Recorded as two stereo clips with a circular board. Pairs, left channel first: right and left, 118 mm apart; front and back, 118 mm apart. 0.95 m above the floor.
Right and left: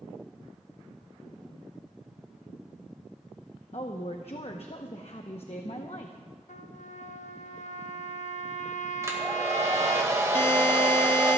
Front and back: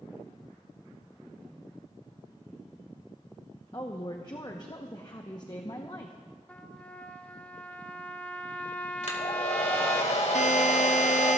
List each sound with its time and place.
3.7 s a woman speaking: 55° right, 0.9 m
6.5 s a trumpet: 75° right, 1.0 m
9.0 s a hair dryer: 25° left, 2 m
10.3 s a buzzer: 20° right, 0.7 m